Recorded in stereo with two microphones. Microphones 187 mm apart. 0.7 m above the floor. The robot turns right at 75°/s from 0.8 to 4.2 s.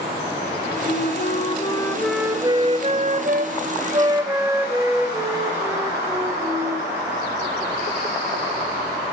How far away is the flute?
About 0.7 m.